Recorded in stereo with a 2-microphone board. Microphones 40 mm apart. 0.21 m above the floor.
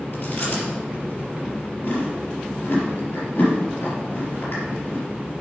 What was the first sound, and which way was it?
Chewing, 65° left (ahead or behind).